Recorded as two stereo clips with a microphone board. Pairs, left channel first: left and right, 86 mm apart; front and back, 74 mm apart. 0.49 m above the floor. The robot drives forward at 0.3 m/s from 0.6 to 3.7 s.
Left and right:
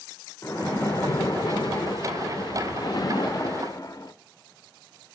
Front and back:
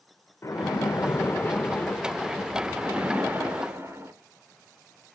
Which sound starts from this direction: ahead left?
A splash, at 0.4 s.